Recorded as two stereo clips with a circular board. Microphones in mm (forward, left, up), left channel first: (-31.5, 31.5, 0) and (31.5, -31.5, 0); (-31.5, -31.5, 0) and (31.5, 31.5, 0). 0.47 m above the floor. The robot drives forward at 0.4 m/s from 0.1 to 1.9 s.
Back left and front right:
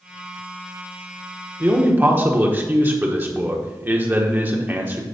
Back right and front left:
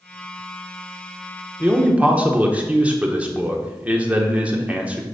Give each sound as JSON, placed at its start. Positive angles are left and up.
{"t": 1.6, "sound": "a man speaking", "azimuth_deg": -5, "distance_m": 1.1}